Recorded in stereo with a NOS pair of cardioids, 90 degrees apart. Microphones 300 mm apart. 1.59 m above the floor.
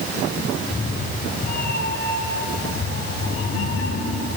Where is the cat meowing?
20° left, 7 m; by 4.3 s 55° left, 7 m.